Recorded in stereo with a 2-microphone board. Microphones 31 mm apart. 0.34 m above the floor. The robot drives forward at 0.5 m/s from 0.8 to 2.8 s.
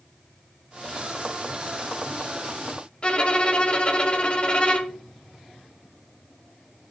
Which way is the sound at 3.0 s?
35° left (ahead or behind).